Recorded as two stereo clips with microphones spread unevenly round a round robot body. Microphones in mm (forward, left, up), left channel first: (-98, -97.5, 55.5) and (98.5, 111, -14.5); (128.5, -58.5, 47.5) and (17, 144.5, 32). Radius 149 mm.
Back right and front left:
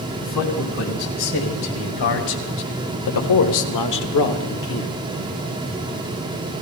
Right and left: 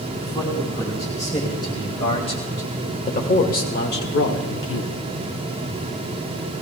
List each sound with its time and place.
0.2 s a man speaking: 140° right, 4 m; by 4.9 s 75° right, 1.3 m